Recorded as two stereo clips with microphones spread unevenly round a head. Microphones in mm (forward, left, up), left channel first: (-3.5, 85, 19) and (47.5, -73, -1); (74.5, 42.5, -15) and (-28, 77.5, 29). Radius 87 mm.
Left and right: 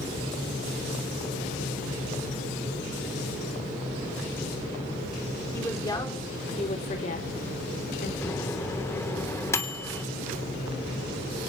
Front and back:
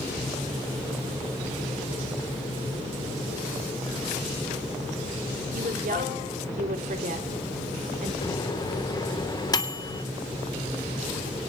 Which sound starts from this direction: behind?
A woman speaking, at 5.5 s.